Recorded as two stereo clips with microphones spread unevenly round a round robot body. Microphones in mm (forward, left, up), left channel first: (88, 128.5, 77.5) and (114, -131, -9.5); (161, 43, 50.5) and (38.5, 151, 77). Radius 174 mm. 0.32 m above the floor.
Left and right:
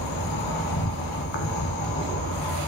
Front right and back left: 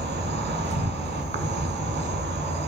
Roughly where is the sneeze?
No sneeze in this recording.